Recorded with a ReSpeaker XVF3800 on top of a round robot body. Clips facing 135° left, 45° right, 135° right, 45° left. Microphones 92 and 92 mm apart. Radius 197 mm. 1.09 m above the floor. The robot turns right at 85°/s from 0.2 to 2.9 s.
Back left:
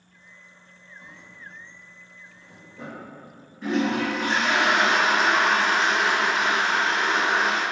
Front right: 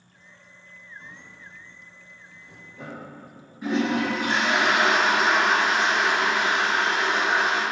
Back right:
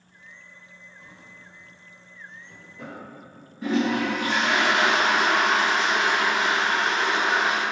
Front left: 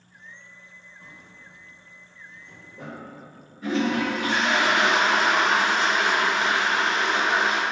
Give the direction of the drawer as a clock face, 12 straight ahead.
4 o'clock.